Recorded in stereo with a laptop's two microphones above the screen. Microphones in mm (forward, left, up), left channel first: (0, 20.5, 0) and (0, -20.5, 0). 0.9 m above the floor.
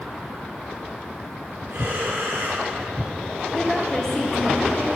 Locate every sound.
1.7 s breathing: 85° right, 2.5 m
3.5 s a woman speaking: 10° left (ahead or behind), 1.6 m